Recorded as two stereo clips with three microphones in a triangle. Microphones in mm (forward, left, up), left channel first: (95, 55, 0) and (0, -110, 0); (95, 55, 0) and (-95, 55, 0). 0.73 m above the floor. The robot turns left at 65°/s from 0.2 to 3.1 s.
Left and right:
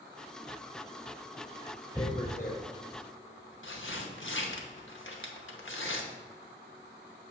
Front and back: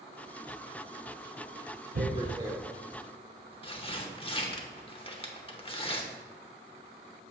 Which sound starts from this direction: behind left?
Tearing paper, at 1.9 s.